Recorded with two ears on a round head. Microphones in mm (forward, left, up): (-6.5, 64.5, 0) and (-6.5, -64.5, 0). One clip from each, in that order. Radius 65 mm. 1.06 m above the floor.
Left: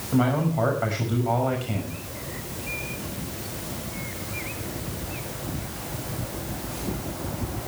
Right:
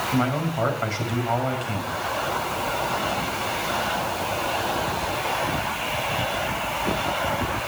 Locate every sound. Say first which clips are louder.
0.1 s a man speaking: even; 30° right (ahead or behind), 5.5 m